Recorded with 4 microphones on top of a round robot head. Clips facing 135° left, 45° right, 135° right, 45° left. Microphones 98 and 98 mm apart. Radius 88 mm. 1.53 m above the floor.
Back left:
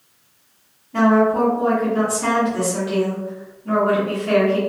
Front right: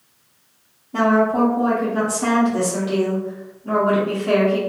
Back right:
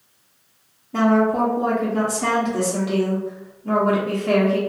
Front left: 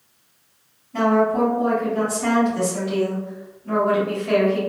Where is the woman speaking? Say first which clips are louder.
Back left 1 dB, back right 1 dB; 110° right, 1.0 m.